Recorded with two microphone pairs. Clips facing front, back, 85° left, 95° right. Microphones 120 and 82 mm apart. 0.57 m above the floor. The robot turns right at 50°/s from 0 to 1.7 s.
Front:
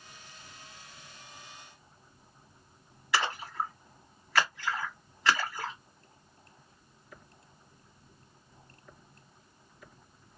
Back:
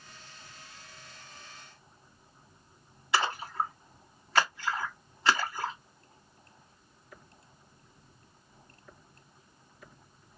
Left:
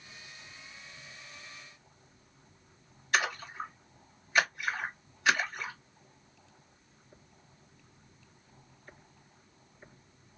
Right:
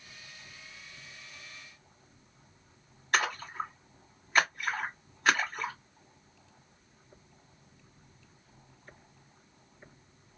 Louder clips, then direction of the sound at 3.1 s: Back 2 dB, right 1 dB; 120° right.